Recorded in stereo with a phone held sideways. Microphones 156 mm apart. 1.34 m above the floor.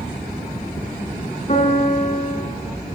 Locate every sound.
1.5 s a piano: 50° left (ahead or behind), 4 m